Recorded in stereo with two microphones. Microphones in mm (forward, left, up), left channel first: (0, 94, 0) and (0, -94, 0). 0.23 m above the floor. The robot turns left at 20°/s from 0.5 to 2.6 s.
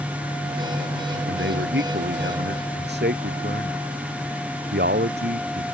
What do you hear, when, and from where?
1.3 s a man speaking: 85° right; by 5.7 s 60° right (ahead or behind)